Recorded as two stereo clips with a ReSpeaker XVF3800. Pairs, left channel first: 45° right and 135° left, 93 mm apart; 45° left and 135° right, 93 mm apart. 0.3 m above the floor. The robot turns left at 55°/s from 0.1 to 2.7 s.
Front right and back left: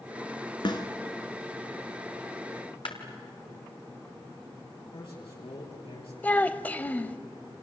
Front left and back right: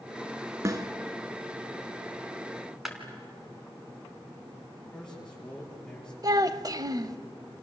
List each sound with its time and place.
0.7 s a snare drum: 75° right, 1.7 m; by 0.9 s 90° right, 1.7 m
2.9 s a clap: 50° right, 3 m
4.9 s a man speaking: 35° right, 7.5 m
6.2 s a child speaking: 110° right, 0.8 m